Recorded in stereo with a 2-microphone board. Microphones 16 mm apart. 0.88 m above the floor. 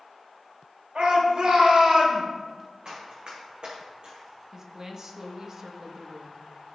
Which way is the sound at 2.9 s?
60° right (ahead or behind).